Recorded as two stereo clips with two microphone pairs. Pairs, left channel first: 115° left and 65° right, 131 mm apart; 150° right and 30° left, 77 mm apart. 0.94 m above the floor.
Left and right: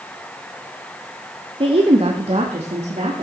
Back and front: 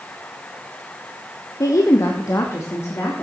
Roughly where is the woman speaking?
Right.